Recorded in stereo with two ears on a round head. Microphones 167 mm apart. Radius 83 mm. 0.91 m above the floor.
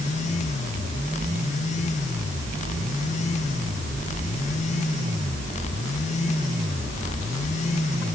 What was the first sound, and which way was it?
Only background noise.